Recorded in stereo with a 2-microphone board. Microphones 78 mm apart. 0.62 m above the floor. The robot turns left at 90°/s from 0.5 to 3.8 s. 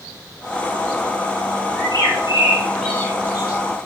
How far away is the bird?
About 4 m.